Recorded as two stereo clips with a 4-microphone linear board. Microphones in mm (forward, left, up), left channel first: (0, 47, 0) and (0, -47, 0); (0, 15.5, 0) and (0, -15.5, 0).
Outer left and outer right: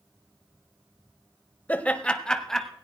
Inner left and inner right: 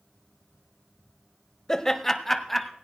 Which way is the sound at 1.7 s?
15° left (ahead or behind).